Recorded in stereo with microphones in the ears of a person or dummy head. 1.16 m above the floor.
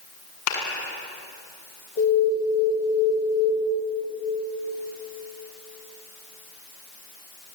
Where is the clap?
85° left, 6.5 m.